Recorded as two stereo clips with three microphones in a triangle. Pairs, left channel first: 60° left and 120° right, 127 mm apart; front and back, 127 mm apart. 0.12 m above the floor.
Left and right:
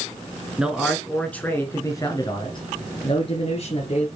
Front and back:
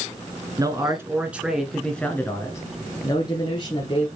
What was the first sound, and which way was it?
A man speaking, 165° left.